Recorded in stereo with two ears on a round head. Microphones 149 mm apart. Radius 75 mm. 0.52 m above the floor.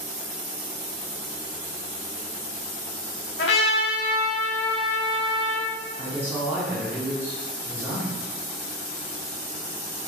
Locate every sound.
3.4 s a trumpet: 75° left (ahead or behind), 0.7 m
6.0 s a woman speaking: 15° right (ahead or behind), 1.2 m